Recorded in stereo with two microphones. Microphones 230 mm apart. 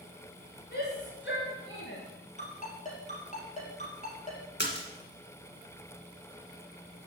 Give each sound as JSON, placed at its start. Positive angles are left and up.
{"t": 0.7, "sound": "a shout", "side_deg": 45, "distance_m": 3.0}
{"t": 2.4, "sound": "a ringtone", "side_deg": 30, "distance_m": 3.5}
{"t": 4.6, "sound": "a splash", "side_deg": 50, "distance_m": 1.8}